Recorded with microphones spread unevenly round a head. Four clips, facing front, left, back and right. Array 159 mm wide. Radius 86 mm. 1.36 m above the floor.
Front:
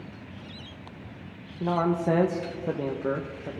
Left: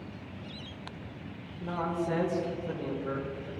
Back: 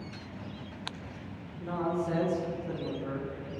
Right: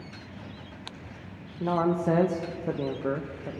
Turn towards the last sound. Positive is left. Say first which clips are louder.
# right 7 dB, front 6 dB
turn(degrees=-45)